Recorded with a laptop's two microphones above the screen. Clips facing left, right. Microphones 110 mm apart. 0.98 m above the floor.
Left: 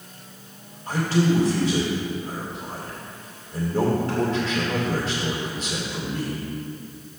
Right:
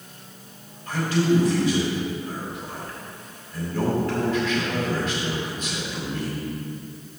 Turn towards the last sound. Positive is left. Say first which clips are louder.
# even
turn(degrees=30)  # may be behind; listen again after turning